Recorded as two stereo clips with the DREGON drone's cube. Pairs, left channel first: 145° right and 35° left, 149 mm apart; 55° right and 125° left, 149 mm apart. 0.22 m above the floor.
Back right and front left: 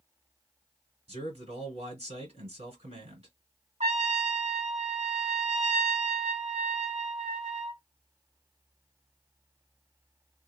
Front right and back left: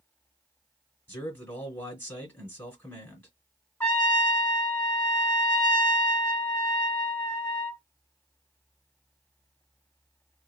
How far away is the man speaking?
About 2 m.